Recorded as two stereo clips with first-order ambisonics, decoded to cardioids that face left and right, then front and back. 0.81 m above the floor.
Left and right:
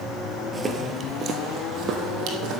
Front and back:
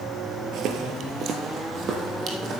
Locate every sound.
0.5 s footsteps: 165° right, 1.0 m; by 2.6 s 120° right, 2 m